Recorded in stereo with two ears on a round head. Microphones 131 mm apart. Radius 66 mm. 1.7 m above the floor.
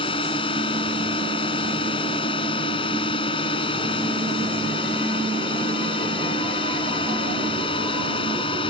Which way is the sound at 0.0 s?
35° left (ahead or behind).